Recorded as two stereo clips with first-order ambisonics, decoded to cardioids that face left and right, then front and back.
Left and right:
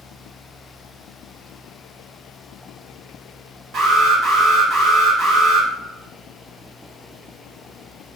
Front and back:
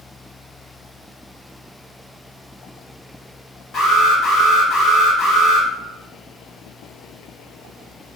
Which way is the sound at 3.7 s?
45° right.